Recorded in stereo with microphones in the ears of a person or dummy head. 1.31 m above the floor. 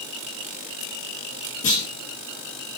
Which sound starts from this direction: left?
A clunk, at 1.6 s.